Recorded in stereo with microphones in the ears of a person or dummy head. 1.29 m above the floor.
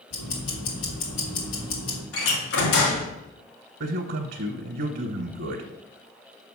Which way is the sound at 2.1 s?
85° left.